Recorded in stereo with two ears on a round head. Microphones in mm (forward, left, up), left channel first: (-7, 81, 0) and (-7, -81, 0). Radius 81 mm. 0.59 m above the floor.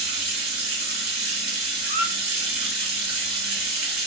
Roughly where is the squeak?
Right.